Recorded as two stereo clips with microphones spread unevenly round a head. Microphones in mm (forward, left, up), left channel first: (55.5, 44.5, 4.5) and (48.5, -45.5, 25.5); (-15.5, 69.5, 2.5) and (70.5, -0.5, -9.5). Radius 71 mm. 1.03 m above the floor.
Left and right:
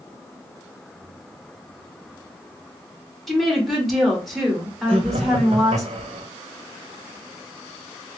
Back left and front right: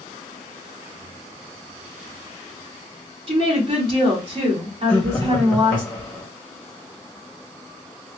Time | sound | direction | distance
3.3 | a woman speaking | straight ahead | 2.0 m
4.9 | laughter | 140° right | 0.9 m